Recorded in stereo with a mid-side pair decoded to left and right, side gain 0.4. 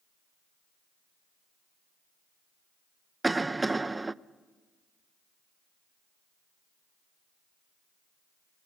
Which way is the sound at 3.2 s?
20° right.